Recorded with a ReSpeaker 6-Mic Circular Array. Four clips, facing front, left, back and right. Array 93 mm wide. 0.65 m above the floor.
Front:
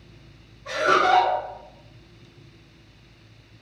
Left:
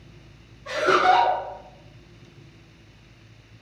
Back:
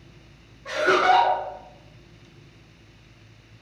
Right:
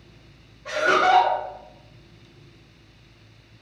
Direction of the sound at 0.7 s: 100° right.